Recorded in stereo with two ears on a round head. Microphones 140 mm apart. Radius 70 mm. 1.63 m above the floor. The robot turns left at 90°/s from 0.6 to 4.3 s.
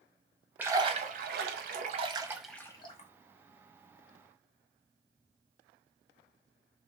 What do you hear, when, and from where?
0.6 s a splash: 10° right (ahead or behind), 0.6 m; by 3.1 s 50° left (ahead or behind), 0.6 m